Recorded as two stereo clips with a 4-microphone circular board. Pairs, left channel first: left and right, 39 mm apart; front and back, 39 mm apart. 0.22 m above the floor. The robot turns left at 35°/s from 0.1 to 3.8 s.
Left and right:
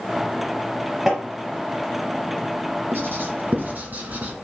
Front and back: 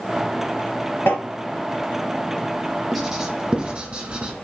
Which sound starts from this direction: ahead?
Tapping, at 1.1 s.